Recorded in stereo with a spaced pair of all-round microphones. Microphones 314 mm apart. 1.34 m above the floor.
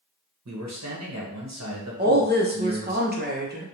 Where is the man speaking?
60° right (ahead or behind), 0.8 m.